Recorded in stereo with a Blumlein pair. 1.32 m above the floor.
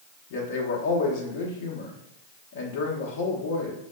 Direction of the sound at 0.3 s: 50° left.